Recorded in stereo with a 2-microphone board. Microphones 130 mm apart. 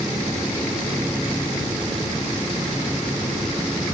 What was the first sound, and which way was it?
Only background noise.